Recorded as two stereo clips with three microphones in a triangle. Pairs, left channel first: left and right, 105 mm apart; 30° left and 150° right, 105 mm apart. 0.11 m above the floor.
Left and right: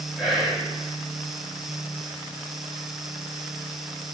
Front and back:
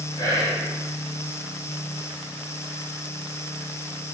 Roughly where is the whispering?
Ahead.